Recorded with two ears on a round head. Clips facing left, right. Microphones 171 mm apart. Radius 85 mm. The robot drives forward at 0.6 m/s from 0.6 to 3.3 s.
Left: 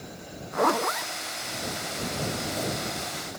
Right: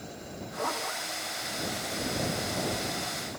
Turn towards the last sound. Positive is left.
turn(degrees=35)  # may be behind; listen again after turning